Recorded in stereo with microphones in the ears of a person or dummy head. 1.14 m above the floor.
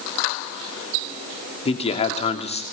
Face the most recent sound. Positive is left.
turn(degrees=30)  # may be behind; listen again after turning